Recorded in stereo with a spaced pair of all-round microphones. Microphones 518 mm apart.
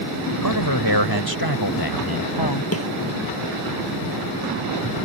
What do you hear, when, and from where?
0.4 s a man speaking: 45° left (ahead or behind)
2.7 s a snare drum: 25° left (ahead or behind)